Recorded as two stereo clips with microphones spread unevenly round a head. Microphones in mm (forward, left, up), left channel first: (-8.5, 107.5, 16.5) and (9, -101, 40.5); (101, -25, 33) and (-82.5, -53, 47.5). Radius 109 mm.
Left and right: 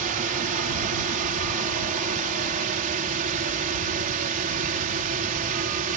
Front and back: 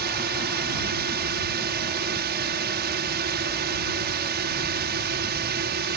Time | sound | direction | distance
0.0 | a drone | 140° right | ?